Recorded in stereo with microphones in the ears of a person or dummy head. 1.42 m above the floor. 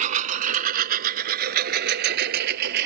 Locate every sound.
0.0 s a lawn mower: 40° right (ahead or behind); by 2.9 s 60° right (ahead or behind)